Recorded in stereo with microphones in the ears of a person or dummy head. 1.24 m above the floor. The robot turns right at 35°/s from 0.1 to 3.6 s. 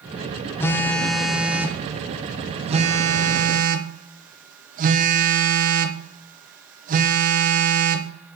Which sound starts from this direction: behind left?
A phone buzzing, at 0.6 s.